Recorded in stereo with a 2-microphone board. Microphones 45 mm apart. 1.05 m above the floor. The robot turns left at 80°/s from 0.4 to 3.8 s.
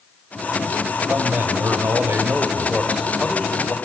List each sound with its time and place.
1.1 s a man speaking: 15° right, 2.5 m; by 3.8 s 130° left, 2.5 m